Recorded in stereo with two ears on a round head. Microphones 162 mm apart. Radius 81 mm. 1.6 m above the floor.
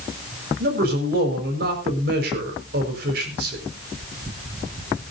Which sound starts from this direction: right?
A man speaking, at 0.6 s.